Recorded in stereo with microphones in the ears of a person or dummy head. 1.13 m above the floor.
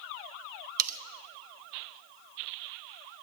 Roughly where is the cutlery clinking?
Right.